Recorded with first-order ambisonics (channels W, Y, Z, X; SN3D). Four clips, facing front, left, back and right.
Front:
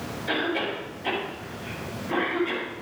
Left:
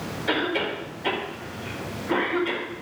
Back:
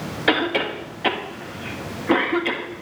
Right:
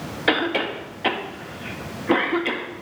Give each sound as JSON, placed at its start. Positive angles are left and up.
{"t": 0.3, "sound": "a cough", "azimuth_deg": -140, "distance_m": 1.7}